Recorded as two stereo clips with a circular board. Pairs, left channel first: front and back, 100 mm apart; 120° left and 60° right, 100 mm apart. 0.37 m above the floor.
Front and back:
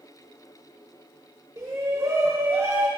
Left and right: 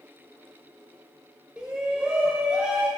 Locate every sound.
1.6 s a shout: 135° right, 1.3 m